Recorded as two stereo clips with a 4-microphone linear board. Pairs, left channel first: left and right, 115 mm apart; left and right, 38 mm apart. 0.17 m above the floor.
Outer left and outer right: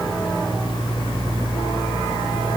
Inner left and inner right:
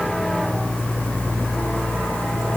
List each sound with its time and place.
Only background noise.